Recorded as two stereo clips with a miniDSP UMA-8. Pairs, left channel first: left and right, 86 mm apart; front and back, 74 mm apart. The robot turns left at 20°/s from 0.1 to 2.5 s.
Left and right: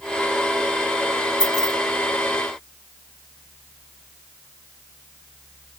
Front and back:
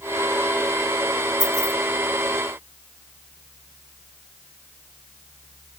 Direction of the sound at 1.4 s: 170° right.